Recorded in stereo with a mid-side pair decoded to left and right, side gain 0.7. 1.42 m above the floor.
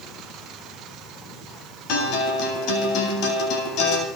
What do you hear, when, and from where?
1.9 s a guitar: 60° left, 8 m